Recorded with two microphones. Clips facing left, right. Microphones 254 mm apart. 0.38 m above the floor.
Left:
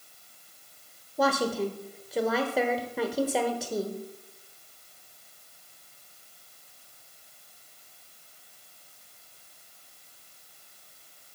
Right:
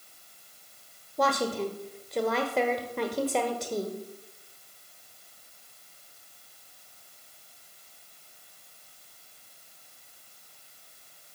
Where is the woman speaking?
5° left (ahead or behind), 1.0 m.